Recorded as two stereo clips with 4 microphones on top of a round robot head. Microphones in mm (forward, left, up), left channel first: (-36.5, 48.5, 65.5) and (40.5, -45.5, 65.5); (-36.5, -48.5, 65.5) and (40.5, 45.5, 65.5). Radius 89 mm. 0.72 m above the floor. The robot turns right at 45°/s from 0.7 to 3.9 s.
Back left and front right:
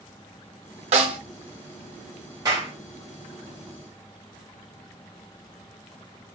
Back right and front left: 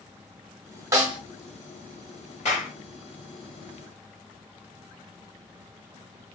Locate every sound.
0.9 s a snare drum: 15° right, 0.6 m; by 1.2 s straight ahead, 0.6 m
2.5 s a clap: 110° right, 1.9 m; by 2.7 s 100° right, 1.9 m